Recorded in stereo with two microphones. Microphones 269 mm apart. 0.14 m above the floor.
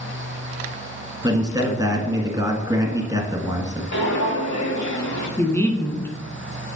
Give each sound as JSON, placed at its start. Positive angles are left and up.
{"t": 1.2, "sound": "a man speaking", "side_deg": -15, "distance_m": 1.5}
{"t": 3.9, "sound": "footsteps", "side_deg": 85, "distance_m": 4.0}
{"t": 5.4, "sound": "a woman speaking", "side_deg": 10, "distance_m": 1.3}